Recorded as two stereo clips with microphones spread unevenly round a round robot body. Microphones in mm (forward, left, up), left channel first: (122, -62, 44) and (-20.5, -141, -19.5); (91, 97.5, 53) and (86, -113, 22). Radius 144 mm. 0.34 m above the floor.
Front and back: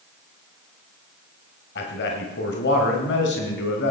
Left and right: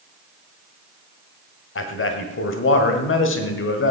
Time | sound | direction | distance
1.8 | a man speaking | 70° left | 1.9 m